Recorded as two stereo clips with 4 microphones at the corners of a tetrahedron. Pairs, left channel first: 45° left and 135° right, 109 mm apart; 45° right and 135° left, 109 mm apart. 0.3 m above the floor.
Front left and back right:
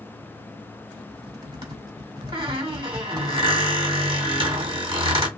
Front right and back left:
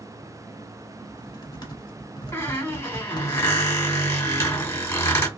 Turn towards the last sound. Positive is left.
turn(degrees=-105)